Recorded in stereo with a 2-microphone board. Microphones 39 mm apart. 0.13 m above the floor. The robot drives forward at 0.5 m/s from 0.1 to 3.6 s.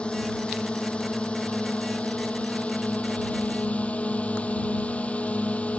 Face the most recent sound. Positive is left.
turn(degrees=35)  # may be behind; listen again after turning